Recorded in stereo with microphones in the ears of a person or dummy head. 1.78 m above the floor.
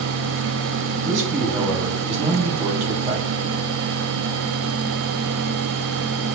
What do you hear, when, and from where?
1.0 s a man speaking: 35° right (ahead or behind), 1.6 m